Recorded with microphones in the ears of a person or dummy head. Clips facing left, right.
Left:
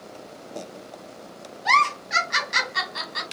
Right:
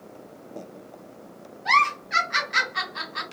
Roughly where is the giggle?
Left.